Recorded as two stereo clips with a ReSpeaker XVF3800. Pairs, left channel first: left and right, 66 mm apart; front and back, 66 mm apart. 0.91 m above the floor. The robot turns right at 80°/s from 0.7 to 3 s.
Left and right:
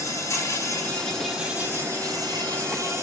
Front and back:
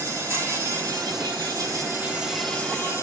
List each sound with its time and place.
0.0 s an insect: 135° left, 3 m; by 3.0 s 40° right, 3 m